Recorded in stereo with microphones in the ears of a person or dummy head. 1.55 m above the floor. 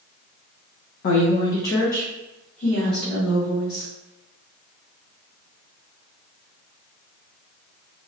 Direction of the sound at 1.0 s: 35° left (ahead or behind).